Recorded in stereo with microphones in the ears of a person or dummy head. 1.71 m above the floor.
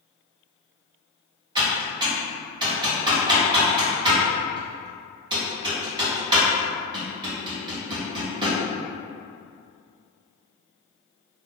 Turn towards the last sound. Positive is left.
turn(degrees=-25)  # may be behind; listen again after turning